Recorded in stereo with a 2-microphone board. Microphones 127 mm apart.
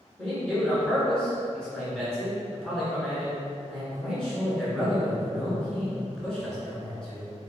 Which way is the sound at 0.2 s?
5° left (ahead or behind).